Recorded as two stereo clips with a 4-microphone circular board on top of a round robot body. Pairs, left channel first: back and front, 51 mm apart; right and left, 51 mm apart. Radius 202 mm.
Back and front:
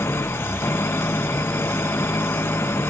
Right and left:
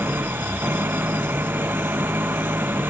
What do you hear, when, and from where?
0.0 s an engine running: 140° left